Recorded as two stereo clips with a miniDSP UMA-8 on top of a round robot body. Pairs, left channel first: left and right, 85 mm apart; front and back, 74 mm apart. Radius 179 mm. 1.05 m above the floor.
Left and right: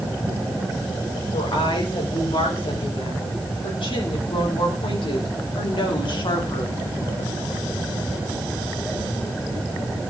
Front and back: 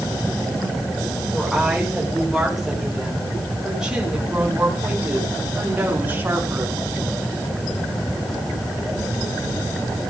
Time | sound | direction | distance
1.3 | a woman speaking | 90° left | 5 m